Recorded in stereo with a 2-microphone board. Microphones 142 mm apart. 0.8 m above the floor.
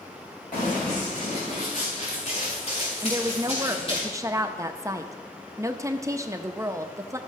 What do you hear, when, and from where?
0.5 s running footsteps: 75° left (ahead or behind), 4.5 m; by 4.0 s 40° left (ahead or behind), 4.5 m
3.0 s a woman speaking: 20° right (ahead or behind), 0.7 m